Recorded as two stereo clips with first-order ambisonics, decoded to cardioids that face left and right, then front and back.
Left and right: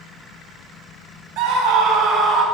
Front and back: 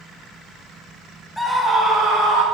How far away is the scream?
About 1.0 m.